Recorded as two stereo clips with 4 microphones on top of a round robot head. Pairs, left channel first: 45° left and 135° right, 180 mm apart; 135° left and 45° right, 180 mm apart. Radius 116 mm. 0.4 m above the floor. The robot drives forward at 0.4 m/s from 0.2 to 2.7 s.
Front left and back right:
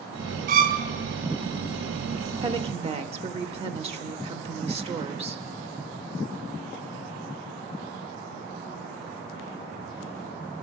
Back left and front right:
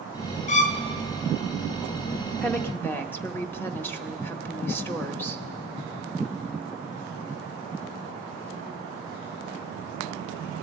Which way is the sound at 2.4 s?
145° right.